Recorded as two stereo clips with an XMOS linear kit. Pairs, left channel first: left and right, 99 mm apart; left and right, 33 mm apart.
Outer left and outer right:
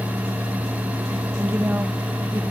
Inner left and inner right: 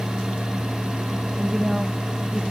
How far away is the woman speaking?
About 1.2 m.